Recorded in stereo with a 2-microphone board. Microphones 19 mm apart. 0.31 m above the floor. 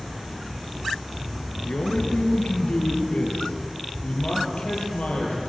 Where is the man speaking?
75° left (ahead or behind), 5.5 m.